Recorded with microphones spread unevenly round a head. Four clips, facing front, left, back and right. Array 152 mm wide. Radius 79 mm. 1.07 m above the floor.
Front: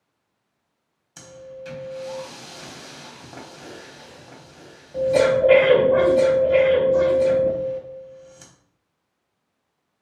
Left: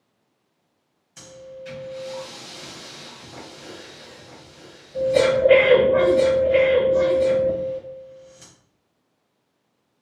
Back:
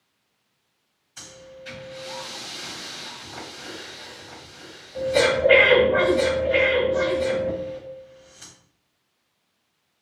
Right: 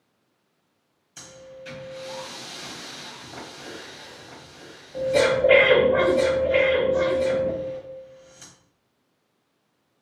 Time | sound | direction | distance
1.2 | breathing | 10° right | 0.9 m